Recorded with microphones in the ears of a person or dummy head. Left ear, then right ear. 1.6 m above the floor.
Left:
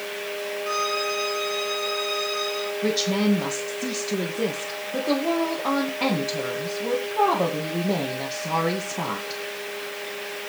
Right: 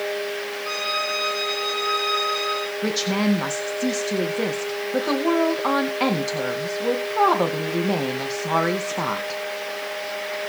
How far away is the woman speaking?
About 2 m.